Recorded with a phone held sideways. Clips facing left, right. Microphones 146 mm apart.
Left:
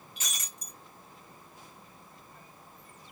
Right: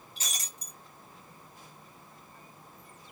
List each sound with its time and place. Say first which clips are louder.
0.2 s breaking glass: right 1 dB; 35° right (ahead or behind), 1.6 m